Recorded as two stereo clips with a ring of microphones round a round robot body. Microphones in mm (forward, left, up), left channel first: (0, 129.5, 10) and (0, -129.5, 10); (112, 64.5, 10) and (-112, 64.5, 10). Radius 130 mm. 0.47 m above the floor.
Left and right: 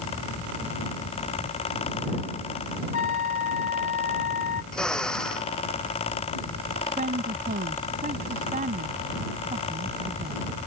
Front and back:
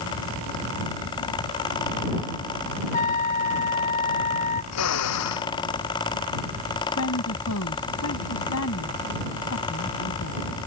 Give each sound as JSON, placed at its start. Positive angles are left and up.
{"t": 2.9, "sound": "a trumpet", "azimuth_deg": 55}
{"t": 4.7, "sound": "a drill", "azimuth_deg": 5}
{"t": 7.0, "sound": "a woman speaking", "azimuth_deg": -30}